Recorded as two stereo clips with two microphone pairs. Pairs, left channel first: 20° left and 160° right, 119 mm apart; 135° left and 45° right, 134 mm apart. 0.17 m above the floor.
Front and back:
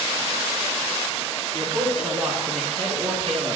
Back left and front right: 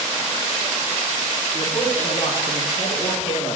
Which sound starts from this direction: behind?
A woman speaking, at 1.5 s.